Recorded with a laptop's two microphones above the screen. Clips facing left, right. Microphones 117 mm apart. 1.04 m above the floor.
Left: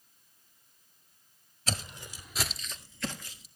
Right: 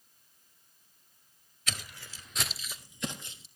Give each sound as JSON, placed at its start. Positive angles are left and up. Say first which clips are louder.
{"t": 1.7, "sound": "footsteps", "louder": "left 5 dB", "side_deg": 35, "distance_m": 1.3}